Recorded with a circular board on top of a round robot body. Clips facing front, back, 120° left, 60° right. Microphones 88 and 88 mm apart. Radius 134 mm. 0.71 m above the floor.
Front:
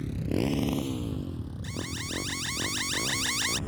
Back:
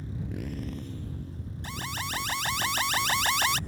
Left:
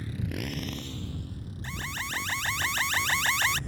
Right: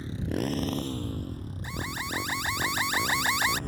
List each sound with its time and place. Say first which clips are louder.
0.0 s a motorcycle: front 8 dB, right 5 dB; 5° left; by 3.7 s 25° right
1.6 s an alarm: back 3 dB, right 2 dB; 135° right